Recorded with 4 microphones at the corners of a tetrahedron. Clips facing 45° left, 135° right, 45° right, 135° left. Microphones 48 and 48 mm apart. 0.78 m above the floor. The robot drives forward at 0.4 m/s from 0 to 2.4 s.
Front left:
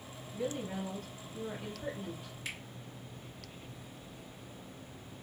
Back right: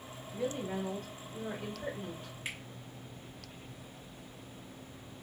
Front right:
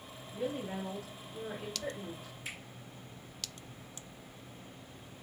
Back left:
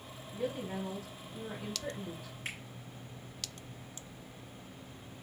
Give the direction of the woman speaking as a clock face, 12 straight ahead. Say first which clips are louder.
Back right 1 dB, even; 3 o'clock.